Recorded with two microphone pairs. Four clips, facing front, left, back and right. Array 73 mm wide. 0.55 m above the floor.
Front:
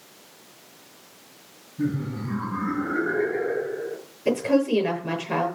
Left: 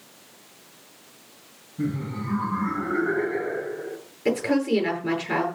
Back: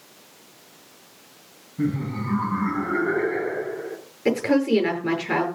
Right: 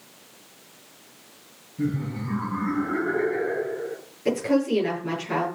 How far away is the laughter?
About 5 m.